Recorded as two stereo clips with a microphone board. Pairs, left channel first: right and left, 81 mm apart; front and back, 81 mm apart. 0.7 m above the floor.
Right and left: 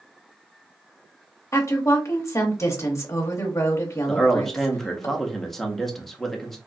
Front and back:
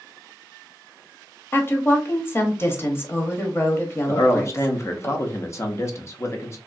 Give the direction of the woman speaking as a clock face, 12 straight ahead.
2 o'clock.